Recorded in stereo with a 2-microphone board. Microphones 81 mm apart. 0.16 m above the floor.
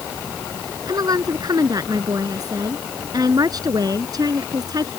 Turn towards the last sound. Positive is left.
turn(degrees=-50)  # may be behind; listen again after turning